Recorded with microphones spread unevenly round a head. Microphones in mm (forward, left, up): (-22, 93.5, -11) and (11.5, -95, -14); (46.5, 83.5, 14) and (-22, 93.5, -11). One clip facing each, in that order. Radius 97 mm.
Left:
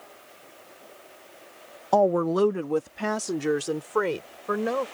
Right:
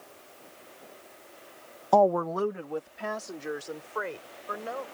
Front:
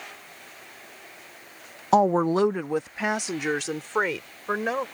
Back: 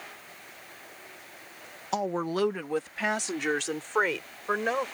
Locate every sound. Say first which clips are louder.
1.9 s a woman speaking: left 2 dB, front 9 dB; 10° left; by 4.8 s 75° left